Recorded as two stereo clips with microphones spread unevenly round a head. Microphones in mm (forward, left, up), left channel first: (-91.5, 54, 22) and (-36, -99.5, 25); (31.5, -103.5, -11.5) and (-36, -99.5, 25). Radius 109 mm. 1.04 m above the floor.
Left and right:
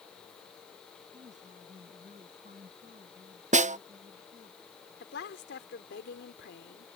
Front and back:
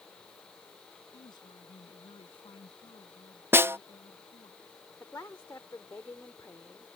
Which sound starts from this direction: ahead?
A woman speaking, at 1.1 s.